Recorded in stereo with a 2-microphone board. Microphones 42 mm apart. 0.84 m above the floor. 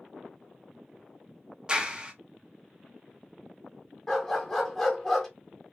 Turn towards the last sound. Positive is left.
turn(degrees=10)  # may be behind; listen again after turning